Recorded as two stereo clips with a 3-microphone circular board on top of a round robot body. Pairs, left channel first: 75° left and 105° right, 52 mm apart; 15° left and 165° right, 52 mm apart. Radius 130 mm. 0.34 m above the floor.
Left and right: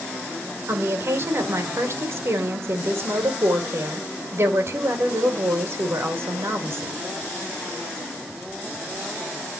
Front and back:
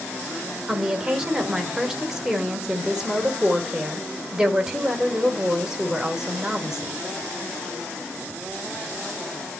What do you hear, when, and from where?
0.7 s a woman speaking: 90° right, 2.0 m